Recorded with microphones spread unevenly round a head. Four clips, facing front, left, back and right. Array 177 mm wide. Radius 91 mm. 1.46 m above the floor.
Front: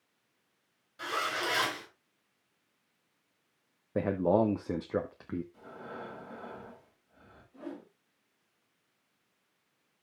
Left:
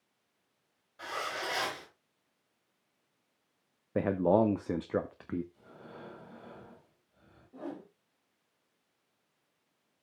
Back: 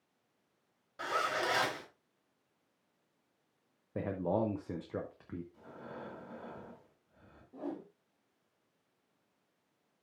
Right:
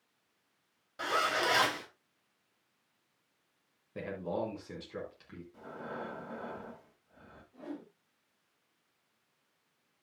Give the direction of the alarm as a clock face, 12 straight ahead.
No alarm in this recording.